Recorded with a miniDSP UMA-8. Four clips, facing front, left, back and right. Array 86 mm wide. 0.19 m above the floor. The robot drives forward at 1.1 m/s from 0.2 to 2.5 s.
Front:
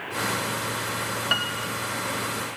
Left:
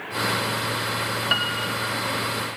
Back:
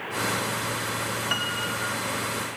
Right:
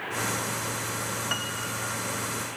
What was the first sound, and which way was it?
A piano, 65° left.